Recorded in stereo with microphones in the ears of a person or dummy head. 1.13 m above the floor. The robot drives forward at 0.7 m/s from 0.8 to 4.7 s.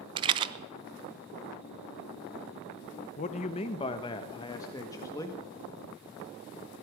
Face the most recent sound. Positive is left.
turn(degrees=15)  # may be behind; listen again after turning